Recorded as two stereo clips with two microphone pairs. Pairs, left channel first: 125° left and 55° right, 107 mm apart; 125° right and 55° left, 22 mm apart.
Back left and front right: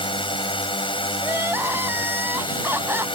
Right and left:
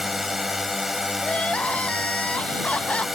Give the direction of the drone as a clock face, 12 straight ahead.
7 o'clock.